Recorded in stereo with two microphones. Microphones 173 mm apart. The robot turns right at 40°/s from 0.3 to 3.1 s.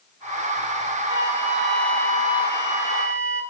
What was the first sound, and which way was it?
A flute, 25° right.